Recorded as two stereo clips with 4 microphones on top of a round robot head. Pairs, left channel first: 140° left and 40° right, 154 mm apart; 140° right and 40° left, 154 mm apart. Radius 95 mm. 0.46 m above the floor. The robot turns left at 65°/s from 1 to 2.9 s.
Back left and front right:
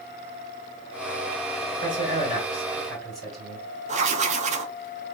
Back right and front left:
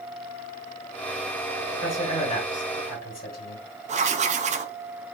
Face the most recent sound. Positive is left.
turn(degrees=0)